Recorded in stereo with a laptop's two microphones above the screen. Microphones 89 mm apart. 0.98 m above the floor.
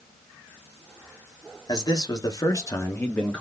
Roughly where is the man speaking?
Left.